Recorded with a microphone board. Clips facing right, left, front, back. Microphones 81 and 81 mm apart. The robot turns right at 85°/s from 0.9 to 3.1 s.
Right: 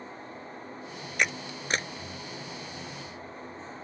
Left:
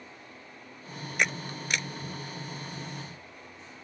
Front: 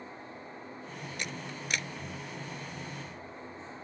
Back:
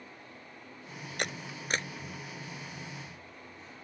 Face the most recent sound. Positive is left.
turn(degrees=-20)